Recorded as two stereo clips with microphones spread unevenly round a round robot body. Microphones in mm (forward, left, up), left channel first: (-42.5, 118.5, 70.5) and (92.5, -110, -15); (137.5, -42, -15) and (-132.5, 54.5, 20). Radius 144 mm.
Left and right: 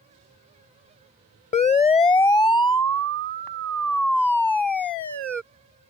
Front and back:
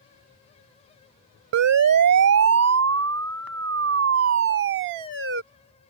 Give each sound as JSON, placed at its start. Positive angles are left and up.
{"t": 1.5, "sound": "a siren", "azimuth_deg": -165}